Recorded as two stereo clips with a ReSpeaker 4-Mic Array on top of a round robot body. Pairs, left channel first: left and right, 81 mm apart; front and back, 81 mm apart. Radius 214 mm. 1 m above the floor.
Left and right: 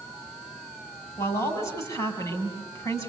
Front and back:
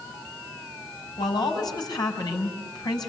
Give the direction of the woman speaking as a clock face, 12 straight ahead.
11 o'clock.